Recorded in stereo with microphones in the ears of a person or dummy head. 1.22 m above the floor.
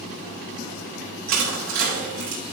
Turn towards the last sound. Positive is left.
turn(degrees=-75)  # may be behind; listen again after turning